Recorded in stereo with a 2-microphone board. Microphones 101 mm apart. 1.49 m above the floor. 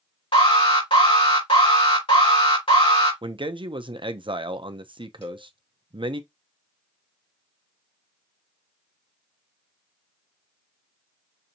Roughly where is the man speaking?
Right.